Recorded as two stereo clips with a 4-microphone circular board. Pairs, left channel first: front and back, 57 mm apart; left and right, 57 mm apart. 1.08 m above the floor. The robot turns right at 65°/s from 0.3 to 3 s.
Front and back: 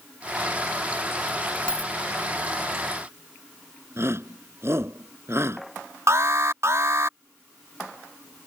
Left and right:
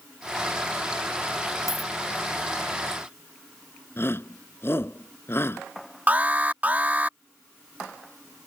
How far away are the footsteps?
No footsteps in this recording.